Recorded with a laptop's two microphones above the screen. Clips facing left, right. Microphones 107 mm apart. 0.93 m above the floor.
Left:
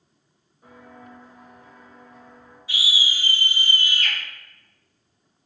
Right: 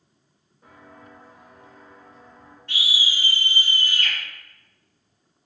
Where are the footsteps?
5° left (ahead or behind), 1.4 m; by 2.6 s 35° right (ahead or behind), 1.1 m.